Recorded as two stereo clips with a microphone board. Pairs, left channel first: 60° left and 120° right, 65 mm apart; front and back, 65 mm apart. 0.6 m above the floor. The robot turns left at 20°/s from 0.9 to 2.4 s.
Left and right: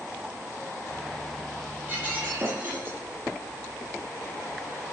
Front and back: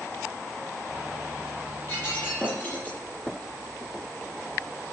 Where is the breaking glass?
55° right, 9 m; by 3.0 s 65° right, 9 m.